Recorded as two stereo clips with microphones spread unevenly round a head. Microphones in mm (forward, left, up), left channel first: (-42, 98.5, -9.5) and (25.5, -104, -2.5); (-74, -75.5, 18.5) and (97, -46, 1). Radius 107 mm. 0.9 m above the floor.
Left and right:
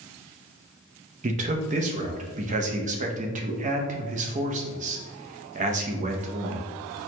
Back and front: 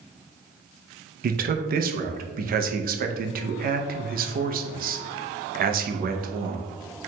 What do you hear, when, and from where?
1.2 s a man speaking: 15° right, 0.6 m